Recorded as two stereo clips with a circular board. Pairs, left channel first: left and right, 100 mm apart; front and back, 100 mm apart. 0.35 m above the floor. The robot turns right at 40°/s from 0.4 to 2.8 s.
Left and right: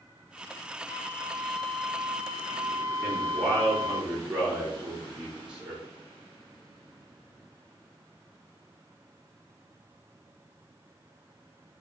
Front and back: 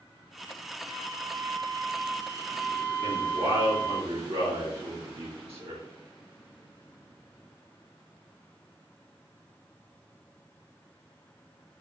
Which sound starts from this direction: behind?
A man speaking, at 3.0 s.